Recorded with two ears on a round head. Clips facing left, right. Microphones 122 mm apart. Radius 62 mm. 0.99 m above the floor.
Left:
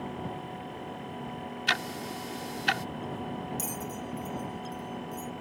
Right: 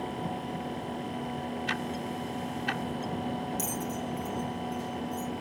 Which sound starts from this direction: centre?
A bell, at 3.6 s.